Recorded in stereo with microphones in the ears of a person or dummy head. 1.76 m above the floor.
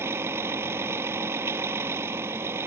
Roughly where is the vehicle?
Centre.